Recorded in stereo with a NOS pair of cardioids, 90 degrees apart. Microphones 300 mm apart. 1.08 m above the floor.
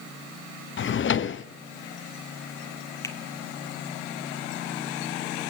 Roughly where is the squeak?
No squeak in this recording.